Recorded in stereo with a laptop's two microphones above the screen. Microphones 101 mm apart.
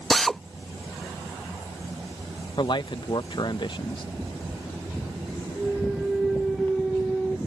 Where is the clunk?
5° right (ahead or behind).